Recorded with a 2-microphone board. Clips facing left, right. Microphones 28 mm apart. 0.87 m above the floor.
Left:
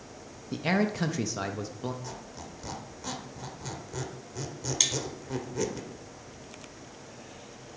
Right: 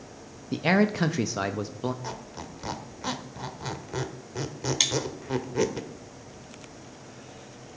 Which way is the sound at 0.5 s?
15° right (ahead or behind).